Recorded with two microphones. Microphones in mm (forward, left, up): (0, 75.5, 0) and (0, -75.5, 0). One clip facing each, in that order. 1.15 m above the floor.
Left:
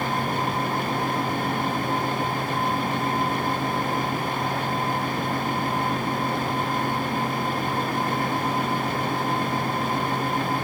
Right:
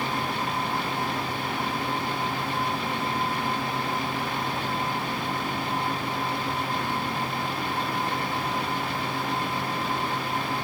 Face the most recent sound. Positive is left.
No sound to turn to.